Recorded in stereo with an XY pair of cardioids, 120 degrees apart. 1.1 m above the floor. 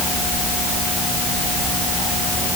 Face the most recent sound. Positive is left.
No sound to turn to.